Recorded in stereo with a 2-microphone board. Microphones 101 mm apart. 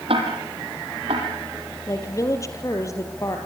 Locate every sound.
0.1 s ticking: 70° right (ahead or behind), 6 m
1.9 s a woman speaking: 30° left (ahead or behind), 4 m